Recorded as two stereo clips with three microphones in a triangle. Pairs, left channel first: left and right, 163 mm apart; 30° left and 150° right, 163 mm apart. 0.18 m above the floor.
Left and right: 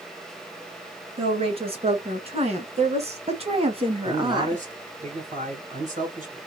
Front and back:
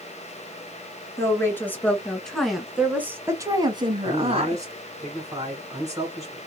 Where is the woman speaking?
40° right, 2 m; by 5.0 s 155° right, 1.5 m.